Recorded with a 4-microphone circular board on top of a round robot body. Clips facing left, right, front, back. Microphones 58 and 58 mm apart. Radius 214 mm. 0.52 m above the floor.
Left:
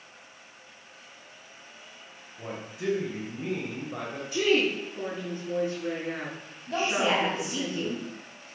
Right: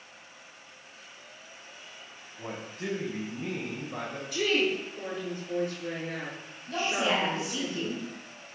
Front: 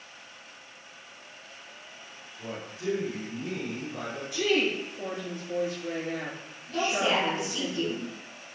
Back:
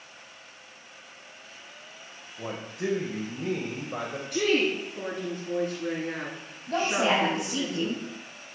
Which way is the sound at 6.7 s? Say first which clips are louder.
Left 2 dB, back 2 dB; 155° left.